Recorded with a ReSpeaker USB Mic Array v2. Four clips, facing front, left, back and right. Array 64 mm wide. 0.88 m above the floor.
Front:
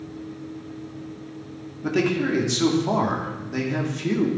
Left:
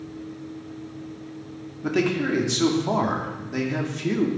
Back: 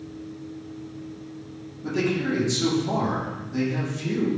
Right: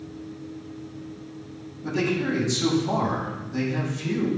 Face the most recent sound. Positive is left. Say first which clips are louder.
# left 2 dB, front 3 dB
turn(degrees=50)